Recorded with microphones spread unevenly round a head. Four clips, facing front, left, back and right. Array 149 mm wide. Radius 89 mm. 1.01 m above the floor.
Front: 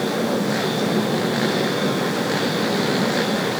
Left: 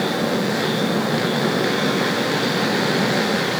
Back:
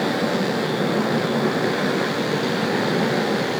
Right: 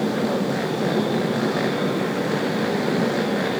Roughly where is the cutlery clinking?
I don't hear cutlery clinking.